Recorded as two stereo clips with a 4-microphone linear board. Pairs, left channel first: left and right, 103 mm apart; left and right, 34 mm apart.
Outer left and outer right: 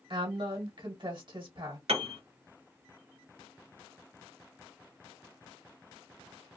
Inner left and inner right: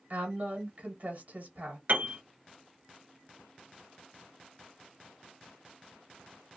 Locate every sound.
0.1 s a woman speaking: 50° right (ahead or behind), 1.4 m
1.9 s a piano: 70° right (ahead or behind), 0.7 m